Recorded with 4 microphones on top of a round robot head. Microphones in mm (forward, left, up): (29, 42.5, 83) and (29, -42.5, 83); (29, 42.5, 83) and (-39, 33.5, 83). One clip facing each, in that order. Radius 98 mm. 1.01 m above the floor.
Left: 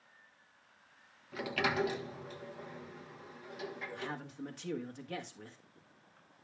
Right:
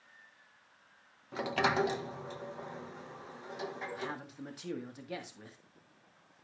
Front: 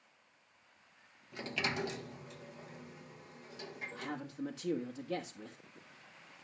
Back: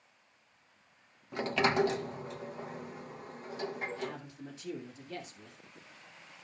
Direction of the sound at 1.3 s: 145° right.